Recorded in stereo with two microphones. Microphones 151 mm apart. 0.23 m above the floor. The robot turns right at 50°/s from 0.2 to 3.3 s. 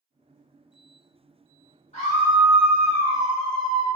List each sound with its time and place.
1.9 s a scream: 90° left, 1.9 m; by 3.9 s 160° left, 1.9 m